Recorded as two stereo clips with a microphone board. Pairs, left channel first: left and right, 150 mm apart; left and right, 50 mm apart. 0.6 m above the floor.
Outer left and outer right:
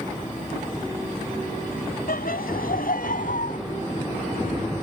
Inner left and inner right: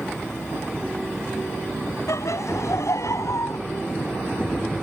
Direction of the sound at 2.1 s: 80° left.